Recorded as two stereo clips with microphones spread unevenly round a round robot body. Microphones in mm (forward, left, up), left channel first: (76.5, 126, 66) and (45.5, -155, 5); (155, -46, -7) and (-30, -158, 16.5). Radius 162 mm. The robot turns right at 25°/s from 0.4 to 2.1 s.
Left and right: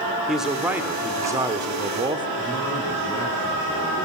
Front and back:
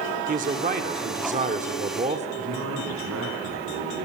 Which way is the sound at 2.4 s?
165° left.